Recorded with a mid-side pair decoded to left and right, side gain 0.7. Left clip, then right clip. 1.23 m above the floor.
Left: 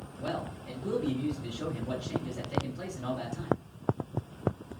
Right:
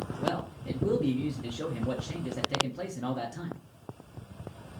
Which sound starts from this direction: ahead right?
A man speaking, at 0.2 s.